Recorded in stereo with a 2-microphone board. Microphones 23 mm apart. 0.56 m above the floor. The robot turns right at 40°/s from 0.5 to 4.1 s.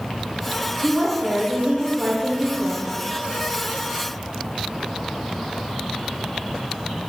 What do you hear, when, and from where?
0.8 s a woman speaking: 90° right, 1.8 m; by 3.0 s 5° right, 1.8 m